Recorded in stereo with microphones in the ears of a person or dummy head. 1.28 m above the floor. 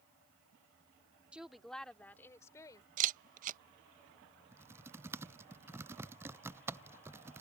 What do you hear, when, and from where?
1.3 s a woman speaking: 5° right (ahead or behind); by 2.9 s 20° left (ahead or behind)
3.0 s a camera shutter: 45° right (ahead or behind)
4.5 s typing on a keyboard: 10° right (ahead or behind)